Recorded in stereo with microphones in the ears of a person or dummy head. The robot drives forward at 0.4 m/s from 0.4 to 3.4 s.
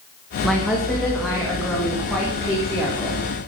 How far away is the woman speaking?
About 1.3 m.